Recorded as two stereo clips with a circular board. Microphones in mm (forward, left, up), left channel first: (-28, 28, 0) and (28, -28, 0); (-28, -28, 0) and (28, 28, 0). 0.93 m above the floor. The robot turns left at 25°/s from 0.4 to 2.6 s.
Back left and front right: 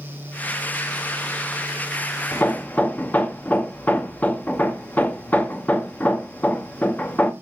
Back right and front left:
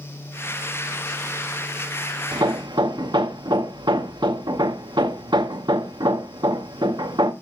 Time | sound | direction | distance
2.3 | hammering | 70° left | 0.8 m